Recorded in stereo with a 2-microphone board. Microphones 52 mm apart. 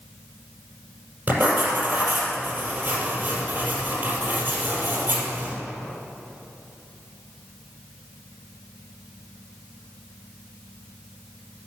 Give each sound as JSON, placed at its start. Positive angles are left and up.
{"t": 1.3, "sound": "writing", "side_deg": -35, "distance_m": 5.0}